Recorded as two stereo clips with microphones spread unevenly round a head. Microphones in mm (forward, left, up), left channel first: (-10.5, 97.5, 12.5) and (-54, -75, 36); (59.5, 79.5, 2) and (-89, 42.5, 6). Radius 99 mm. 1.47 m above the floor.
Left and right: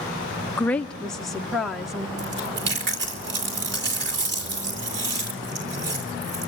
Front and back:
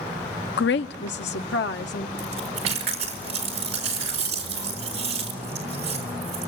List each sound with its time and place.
0.6 s a woman speaking: 5° right, 0.5 m; by 2.1 s 15° right, 1.7 m
2.2 s chewing: 125° right, 4 m